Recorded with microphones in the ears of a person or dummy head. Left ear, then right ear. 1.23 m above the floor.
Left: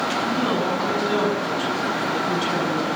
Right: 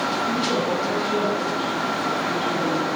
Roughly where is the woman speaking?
Left.